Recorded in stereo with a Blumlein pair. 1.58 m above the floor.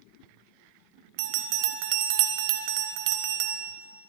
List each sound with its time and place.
1.2 s a bell: 45° right, 0.9 m